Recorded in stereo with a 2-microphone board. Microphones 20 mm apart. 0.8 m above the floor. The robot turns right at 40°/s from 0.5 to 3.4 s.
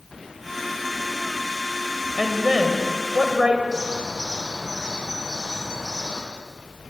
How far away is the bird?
About 10 m.